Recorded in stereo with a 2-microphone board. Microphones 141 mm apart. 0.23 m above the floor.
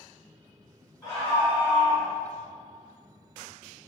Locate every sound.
1.0 s a scream: 30° left (ahead or behind), 1.7 m; by 2.1 s 5° right (ahead or behind), 1.4 m